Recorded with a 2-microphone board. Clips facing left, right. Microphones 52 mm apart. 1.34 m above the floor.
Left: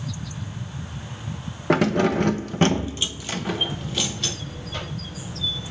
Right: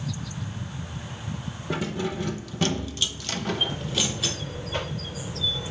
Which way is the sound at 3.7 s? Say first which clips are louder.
Even; 30° right (ahead or behind).